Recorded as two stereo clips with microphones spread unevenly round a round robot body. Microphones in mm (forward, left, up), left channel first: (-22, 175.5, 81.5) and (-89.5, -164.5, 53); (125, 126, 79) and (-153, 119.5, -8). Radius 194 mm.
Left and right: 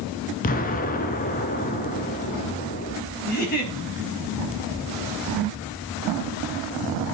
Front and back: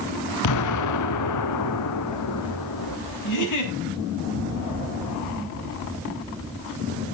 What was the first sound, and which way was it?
An explosion, 10° left.